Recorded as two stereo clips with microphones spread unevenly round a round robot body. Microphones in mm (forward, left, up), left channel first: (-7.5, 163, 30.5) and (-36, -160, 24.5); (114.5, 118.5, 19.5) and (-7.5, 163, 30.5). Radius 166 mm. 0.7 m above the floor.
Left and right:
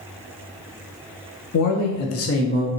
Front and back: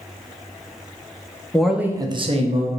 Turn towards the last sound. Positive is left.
turn(degrees=145)